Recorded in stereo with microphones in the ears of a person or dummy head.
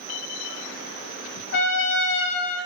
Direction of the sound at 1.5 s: 60° left (ahead or behind).